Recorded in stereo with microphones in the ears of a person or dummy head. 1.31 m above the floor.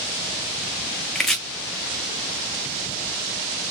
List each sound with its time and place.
1.1 s chopping: centre (ahead or behind), 0.6 m